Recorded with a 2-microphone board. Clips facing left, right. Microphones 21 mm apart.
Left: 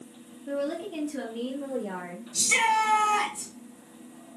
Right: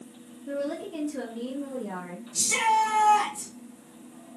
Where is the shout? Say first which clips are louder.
Even; 35° left (ahead or behind), 2 m.